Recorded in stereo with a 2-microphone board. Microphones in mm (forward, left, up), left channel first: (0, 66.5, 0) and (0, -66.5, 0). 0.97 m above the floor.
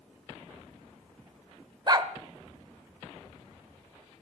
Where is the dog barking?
35° right (ahead or behind), 1.0 m.